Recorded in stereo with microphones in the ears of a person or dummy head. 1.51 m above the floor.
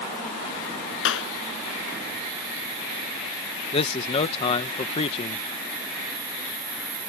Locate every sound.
1.1 s a clap: 90° left
3.7 s a man speaking: 40° left (ahead or behind)